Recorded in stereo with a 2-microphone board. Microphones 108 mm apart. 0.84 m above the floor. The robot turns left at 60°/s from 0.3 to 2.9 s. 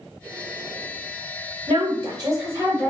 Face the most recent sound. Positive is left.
turn(degrees=180)